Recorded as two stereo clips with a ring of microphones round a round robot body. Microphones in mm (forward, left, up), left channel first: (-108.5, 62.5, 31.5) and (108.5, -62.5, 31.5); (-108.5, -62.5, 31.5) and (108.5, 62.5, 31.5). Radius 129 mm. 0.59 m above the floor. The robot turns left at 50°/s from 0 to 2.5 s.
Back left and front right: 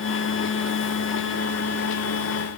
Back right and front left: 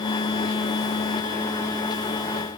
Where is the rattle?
No rattle in this recording.